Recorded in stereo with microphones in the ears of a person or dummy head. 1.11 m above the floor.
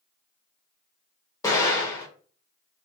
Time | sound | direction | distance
1.4 | an explosion | 20° left (ahead or behind) | 1.5 m